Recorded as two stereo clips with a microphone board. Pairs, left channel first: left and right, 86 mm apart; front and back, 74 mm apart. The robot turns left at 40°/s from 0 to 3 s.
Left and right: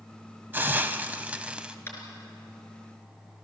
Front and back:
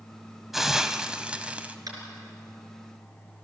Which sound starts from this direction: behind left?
Tapping, at 1.9 s.